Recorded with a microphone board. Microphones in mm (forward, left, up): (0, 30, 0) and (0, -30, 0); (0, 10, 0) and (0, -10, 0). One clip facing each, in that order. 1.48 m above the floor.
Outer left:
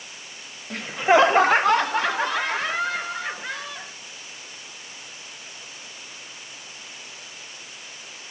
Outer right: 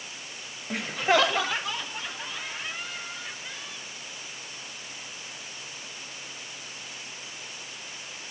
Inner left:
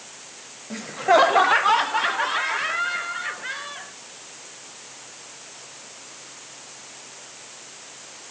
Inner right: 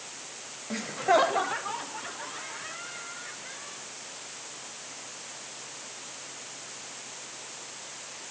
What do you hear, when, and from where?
0.7 s laughter: 5° right (ahead or behind); by 3.9 s 80° left